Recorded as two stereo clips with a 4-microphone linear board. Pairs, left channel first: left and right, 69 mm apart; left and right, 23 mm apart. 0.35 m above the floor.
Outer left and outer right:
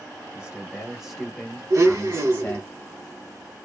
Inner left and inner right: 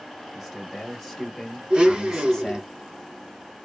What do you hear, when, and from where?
0.3 s a man speaking: 15° right (ahead or behind), 1.2 m; by 2.7 s 20° left (ahead or behind), 1.4 m
1.7 s a blender: 55° right (ahead or behind), 1.0 m